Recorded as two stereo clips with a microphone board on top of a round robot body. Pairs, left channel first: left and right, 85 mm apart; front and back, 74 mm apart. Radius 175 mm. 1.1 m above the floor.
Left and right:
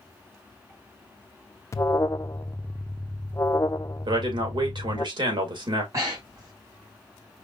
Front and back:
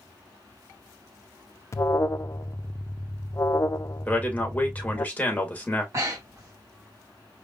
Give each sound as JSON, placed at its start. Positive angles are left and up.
{"t": 1.7, "sound": "an alarm", "azimuth_deg": 40, "distance_m": 0.5}
{"t": 4.0, "sound": "a man speaking", "azimuth_deg": -70, "distance_m": 2.0}
{"t": 5.9, "sound": "breathing", "azimuth_deg": -135, "distance_m": 1.0}